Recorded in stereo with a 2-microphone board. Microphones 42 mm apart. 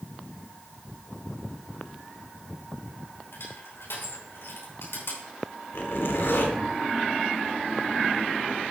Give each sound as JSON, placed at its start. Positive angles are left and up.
{"t": 3.3, "sound": "crushing", "side_deg": 85, "distance_m": 5.5}
{"t": 5.7, "sound": "a zipper", "side_deg": 75, "distance_m": 3.0}